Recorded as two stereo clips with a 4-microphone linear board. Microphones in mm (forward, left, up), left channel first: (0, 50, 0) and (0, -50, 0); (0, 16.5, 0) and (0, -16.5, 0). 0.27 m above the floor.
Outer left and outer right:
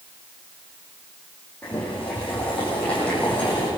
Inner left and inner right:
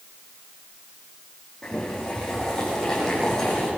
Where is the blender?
No blender in this recording.